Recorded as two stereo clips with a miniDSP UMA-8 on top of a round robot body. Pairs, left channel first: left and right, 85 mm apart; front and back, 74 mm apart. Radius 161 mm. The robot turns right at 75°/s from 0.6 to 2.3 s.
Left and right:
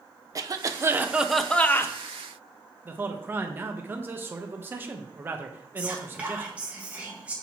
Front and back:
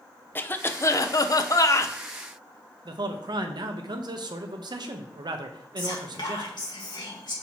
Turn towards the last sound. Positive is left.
turn(degrees=-15)